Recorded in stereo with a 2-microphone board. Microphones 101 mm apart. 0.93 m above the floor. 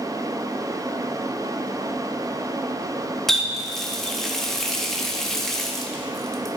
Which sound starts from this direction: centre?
A running tap, at 3.3 s.